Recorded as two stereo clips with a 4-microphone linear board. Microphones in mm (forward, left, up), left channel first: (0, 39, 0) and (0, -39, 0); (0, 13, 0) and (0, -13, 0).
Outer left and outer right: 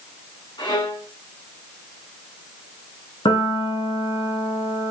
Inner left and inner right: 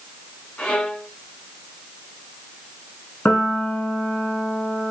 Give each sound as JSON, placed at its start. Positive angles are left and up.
{"t": 0.6, "sound": "a violin", "side_deg": 80, "distance_m": 4.5}
{"t": 3.2, "sound": "a piano", "side_deg": 85, "distance_m": 3.0}